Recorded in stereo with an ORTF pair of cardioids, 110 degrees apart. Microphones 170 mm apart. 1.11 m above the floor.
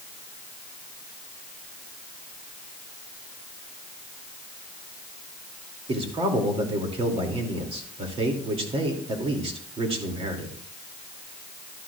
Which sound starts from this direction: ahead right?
A man speaking, at 5.9 s.